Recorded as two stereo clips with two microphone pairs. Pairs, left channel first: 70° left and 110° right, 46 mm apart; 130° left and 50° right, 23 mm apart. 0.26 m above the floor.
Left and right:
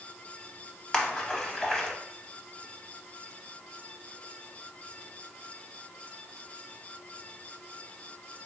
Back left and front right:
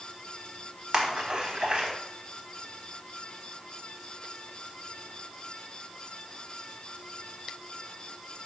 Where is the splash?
Straight ahead, 0.6 m.